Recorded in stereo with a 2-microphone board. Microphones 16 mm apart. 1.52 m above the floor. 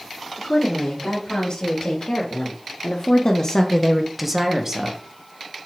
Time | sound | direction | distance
0.4 | a woman speaking | 75° left (ahead or behind) | 4 m